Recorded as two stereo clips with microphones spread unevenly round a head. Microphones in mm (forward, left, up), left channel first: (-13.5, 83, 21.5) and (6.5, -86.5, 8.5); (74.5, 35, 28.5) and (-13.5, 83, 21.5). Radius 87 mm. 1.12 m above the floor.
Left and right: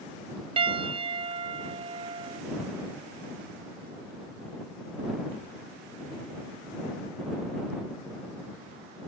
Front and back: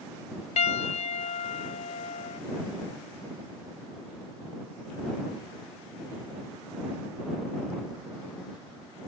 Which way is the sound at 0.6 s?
20° right.